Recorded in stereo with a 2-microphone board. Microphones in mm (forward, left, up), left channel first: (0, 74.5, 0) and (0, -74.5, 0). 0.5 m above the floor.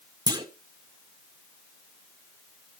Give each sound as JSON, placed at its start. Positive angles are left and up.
{"t": 0.3, "sound": "a clunk", "side_deg": -30, "distance_m": 1.2}